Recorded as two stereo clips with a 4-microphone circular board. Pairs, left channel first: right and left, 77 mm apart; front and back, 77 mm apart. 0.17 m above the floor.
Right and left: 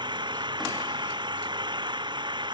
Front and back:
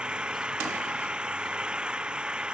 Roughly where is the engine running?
Left.